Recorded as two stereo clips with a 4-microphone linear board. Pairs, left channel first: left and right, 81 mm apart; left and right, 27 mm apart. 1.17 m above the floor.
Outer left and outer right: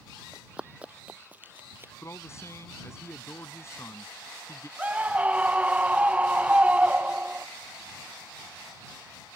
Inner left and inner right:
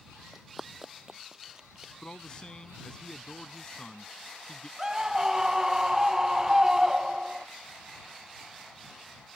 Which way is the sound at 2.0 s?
35° left (ahead or behind).